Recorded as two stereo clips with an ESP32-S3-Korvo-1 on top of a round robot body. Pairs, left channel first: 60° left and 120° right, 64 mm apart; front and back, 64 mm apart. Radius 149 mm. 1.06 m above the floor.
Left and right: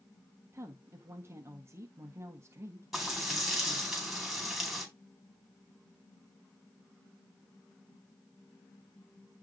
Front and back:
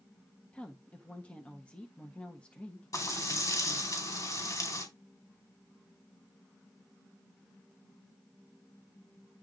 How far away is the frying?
About 4.5 m.